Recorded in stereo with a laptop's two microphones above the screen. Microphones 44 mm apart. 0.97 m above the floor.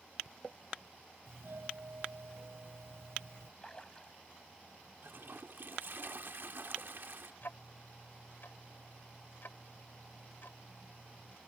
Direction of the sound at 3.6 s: 20° left (ahead or behind).